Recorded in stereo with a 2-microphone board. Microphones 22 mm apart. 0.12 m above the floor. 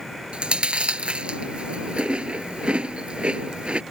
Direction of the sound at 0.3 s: 55° right (ahead or behind).